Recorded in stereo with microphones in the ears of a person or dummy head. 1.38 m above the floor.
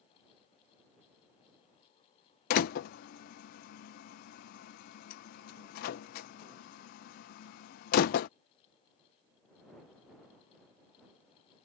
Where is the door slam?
50° left (ahead or behind).